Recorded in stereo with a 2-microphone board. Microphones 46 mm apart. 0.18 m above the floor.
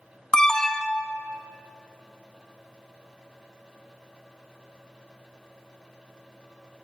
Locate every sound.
0.3 s an alarm: 15° left (ahead or behind), 1.2 m